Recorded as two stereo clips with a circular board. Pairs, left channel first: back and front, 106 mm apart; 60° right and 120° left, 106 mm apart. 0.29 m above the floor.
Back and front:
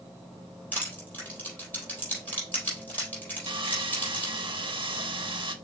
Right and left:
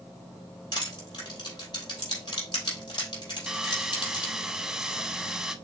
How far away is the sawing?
About 0.5 m.